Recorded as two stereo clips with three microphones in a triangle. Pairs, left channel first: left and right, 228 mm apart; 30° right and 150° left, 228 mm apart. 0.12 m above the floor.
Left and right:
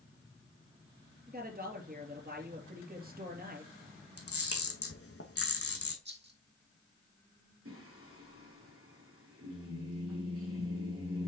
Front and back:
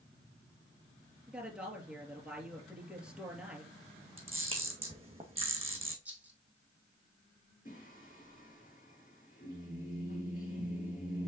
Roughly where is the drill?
No drill in this recording.